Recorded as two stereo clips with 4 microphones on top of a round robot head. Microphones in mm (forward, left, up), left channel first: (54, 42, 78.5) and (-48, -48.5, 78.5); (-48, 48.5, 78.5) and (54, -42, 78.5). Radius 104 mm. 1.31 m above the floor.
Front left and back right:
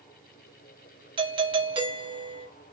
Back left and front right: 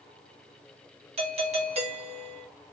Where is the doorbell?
85° right, 1.2 m.